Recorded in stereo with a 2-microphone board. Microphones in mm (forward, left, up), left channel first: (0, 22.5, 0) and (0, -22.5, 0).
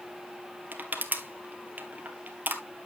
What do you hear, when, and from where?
0.7 s crushing: 35° right (ahead or behind), 1.6 m